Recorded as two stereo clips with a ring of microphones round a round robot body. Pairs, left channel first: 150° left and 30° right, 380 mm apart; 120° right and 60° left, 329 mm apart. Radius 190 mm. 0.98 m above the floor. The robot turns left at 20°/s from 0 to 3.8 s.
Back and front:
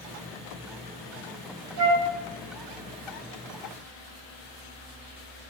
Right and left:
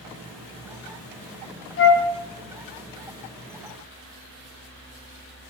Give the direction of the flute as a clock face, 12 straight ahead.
2 o'clock.